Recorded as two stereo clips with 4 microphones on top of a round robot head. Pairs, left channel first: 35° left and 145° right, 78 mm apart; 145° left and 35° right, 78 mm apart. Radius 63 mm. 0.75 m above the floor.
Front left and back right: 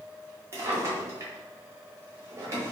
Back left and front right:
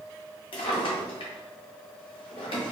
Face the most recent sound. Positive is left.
turn(degrees=155)